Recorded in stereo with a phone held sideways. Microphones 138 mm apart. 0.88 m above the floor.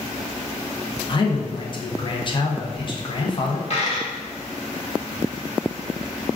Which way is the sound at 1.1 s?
40° left (ahead or behind).